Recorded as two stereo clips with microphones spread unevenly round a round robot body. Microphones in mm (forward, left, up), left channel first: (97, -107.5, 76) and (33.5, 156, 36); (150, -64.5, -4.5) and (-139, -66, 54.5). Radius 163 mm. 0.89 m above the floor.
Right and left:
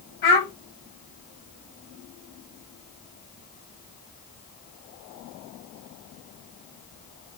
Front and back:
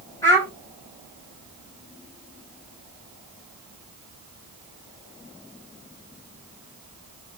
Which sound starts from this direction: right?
A child speaking, at 0.2 s.